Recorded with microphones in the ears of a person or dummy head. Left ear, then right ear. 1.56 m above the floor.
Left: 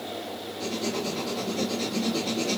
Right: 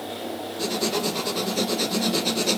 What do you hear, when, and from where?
0.6 s writing: 65° right (ahead or behind), 0.5 m